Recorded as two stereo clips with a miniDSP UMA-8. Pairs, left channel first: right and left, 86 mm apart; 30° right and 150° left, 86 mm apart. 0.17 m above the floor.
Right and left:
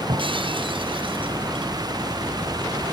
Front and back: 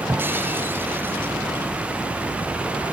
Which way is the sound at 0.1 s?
85° left.